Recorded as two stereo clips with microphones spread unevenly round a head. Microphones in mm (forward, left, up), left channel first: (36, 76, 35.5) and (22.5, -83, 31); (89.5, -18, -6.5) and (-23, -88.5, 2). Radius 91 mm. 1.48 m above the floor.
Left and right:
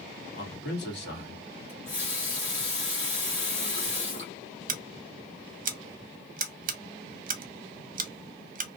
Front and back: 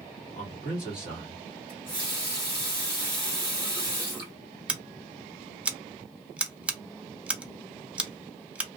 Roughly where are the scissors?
Ahead right.